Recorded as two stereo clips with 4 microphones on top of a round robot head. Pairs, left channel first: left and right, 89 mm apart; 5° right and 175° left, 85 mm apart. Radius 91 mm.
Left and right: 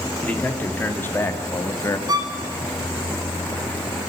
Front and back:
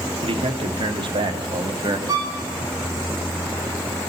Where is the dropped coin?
I don't hear a dropped coin.